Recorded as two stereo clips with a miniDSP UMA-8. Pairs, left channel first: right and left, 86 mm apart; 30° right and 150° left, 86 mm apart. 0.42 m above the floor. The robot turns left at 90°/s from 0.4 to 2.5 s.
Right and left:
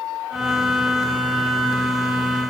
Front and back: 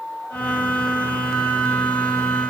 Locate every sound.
Only background noise.